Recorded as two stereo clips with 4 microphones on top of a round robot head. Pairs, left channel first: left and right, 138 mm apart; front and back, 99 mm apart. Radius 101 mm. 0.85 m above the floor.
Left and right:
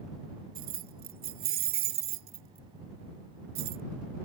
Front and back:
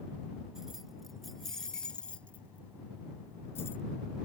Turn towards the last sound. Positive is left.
turn(degrees=-75)